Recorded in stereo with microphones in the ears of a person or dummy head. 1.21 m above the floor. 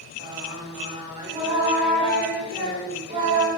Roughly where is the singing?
Right.